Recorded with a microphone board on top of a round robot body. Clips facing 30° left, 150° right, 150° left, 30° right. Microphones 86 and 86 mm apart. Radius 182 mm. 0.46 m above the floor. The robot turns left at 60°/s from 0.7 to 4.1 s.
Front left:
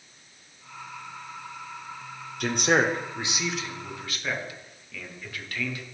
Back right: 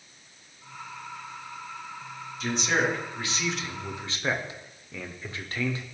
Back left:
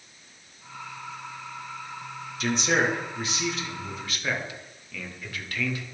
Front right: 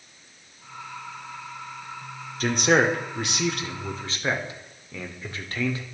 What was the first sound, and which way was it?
A man speaking, 15° left.